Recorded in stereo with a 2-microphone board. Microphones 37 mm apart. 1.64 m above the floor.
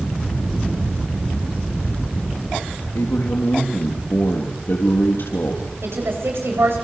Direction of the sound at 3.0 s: 80° left.